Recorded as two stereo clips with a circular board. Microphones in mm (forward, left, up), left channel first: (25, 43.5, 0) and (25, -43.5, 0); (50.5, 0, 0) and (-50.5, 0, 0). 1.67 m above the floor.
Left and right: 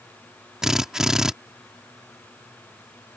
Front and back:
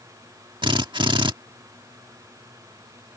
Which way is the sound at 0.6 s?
175° right.